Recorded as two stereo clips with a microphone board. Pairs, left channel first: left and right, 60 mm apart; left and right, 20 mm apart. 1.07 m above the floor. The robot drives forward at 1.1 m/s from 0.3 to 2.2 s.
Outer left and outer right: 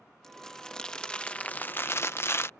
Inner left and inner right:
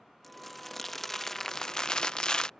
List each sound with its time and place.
0.2 s crumpling: 10° left (ahead or behind); by 2.5 s 40° left (ahead or behind)